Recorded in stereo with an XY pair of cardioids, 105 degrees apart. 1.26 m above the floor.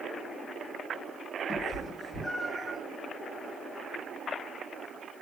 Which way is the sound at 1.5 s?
10° right.